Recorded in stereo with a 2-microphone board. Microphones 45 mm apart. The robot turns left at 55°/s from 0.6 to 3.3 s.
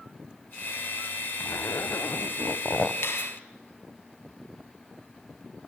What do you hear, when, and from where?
1.4 s a zipper: 110° left, 0.7 m; by 2.9 s 25° left, 0.7 m
3.0 s a finger snap: 60° left (ahead or behind), 2.5 m; by 3.3 s 75° left (ahead or behind), 2.5 m